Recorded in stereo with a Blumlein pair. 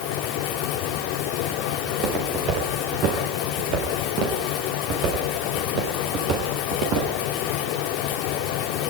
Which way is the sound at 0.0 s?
40° left.